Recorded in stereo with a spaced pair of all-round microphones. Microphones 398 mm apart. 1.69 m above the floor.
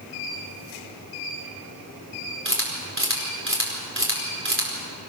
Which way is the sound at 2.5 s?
30° right (ahead or behind).